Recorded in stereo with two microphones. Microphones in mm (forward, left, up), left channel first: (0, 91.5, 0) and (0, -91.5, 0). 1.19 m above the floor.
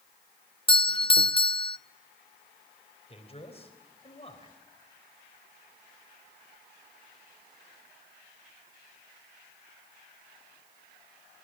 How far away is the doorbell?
About 0.7 m.